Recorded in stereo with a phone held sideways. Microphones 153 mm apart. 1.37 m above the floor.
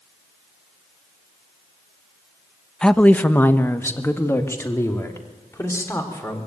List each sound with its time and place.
2.8 s a woman speaking: 5° left (ahead or behind), 0.6 m; by 6.4 s 20° left (ahead or behind), 4 m